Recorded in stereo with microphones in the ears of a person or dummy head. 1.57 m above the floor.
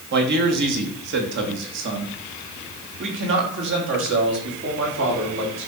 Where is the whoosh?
No whoosh in this recording.